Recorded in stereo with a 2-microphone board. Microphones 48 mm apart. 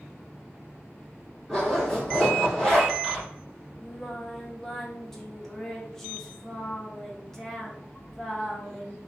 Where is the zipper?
5° left (ahead or behind), 2.0 m.